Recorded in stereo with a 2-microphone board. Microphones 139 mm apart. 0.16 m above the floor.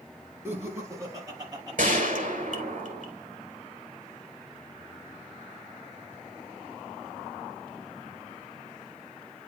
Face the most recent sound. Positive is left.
turn(degrees=-60)  # may be behind; listen again after turning